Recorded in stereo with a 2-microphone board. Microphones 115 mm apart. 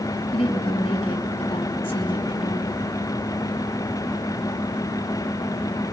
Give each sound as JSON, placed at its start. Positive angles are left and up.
{"t": 0.3, "sound": "a woman speaking", "side_deg": 50, "distance_m": 5.0}